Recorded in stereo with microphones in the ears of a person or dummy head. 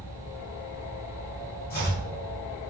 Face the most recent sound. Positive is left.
turn(degrees=45)  # may be behind; listen again after turning